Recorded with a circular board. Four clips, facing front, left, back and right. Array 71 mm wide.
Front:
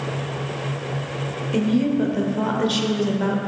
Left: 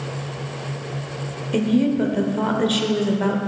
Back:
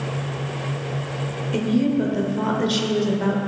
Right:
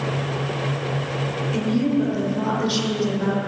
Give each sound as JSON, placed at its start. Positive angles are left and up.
{"t": 1.5, "sound": "a woman speaking", "azimuth_deg": 85, "distance_m": 1.1}